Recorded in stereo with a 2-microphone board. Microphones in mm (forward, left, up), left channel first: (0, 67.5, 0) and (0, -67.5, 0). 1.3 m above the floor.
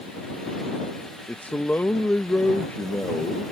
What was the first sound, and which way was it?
A man speaking, 15° left (ahead or behind).